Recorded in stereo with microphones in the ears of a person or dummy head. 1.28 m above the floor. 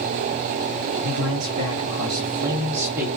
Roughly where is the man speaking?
Right.